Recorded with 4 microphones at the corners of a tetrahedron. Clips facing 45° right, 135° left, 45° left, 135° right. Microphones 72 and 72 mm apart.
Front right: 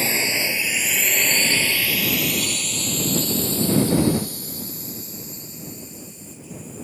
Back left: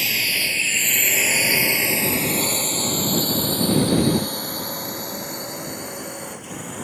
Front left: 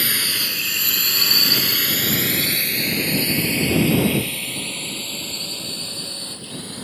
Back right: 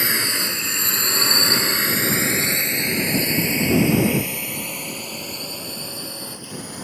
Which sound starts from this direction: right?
A drone, at 0.0 s.